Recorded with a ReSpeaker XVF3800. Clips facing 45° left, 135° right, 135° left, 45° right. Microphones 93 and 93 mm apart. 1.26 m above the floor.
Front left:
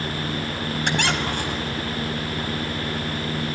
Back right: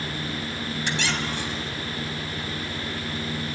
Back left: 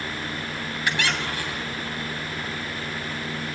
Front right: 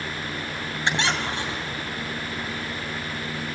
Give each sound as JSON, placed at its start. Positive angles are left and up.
{"t": 0.8, "sound": "a squeak", "azimuth_deg": 20, "distance_m": 3.0}